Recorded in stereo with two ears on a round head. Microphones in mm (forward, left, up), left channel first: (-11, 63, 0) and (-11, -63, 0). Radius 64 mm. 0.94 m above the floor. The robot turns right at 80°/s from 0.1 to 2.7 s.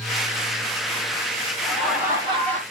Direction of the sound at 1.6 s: 165° left.